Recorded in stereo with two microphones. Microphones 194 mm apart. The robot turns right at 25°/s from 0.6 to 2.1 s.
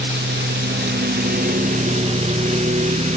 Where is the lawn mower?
65° right (ahead or behind); by 3.2 s 40° right (ahead or behind).